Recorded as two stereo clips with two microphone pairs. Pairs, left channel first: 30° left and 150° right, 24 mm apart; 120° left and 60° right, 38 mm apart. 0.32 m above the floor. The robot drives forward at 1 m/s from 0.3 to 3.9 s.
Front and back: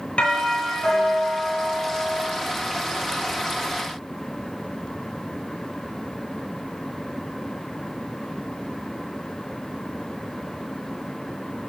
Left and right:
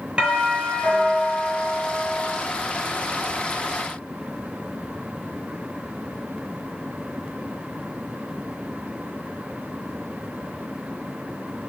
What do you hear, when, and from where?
0.2 s a doorbell: straight ahead, 7 m